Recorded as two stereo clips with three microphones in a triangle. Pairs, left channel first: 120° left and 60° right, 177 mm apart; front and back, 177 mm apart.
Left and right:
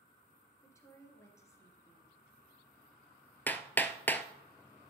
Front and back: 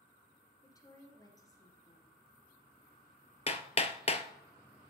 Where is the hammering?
40° left, 0.7 m.